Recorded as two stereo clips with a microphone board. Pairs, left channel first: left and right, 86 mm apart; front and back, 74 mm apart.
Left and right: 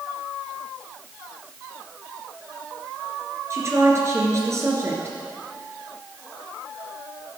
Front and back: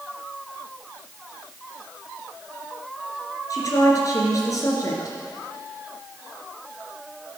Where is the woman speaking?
40° right, 2.5 m.